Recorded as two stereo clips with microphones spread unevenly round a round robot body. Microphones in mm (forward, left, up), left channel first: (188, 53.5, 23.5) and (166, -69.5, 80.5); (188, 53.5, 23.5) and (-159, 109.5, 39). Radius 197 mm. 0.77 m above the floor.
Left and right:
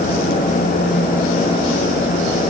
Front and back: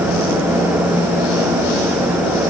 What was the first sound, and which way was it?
Only background noise.